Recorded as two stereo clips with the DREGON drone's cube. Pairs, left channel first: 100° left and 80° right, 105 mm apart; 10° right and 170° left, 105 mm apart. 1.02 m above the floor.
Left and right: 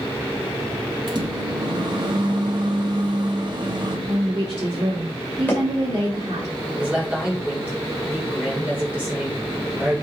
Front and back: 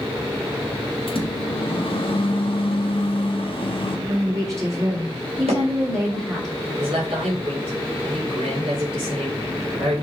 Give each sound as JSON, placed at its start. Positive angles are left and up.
{"t": 1.1, "sound": "a microwave", "azimuth_deg": -40, "distance_m": 1.2}
{"t": 4.1, "sound": "a woman speaking", "azimuth_deg": -125, "distance_m": 2.0}
{"t": 5.5, "sound": "hammering", "azimuth_deg": 175, "distance_m": 2.5}
{"t": 6.8, "sound": "a man speaking", "azimuth_deg": -155, "distance_m": 3.5}